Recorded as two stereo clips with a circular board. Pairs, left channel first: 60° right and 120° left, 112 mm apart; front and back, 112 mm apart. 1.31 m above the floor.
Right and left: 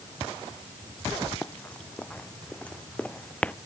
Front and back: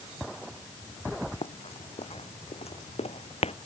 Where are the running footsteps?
15° left; by 3.5 s 20° left.